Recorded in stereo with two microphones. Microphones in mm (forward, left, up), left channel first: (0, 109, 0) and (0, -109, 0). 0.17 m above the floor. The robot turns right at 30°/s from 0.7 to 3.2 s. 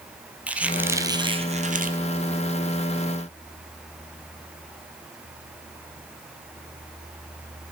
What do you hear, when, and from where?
0.5 s a squeak: 175° right, 1.3 m; by 2.0 s 135° right, 1.3 m